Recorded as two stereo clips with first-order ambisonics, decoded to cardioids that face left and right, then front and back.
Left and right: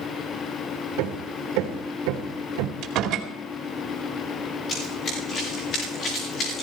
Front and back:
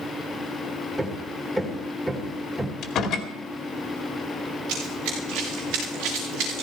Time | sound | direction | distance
1.0 | hammering | 95° right | 2.5 m
2.8 | a door slam | 50° right | 2.5 m
4.7 | running footsteps | 150° left | 6.5 m